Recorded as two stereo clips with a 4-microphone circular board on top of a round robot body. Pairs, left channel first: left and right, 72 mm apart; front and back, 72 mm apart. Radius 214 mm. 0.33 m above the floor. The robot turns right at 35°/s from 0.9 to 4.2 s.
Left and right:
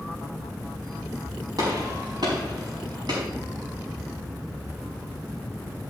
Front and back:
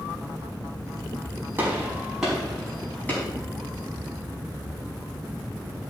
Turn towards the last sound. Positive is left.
turn(degrees=-30)